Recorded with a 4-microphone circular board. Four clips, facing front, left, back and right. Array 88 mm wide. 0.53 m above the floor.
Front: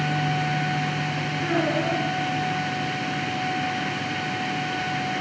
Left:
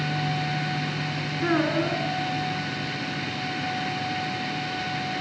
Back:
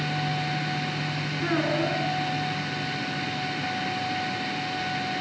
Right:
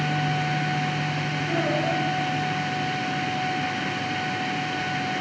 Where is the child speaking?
95° left, 4.5 m.